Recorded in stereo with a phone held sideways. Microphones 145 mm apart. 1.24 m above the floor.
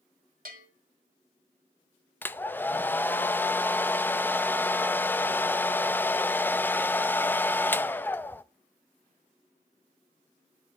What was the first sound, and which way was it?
A bell, 80° right.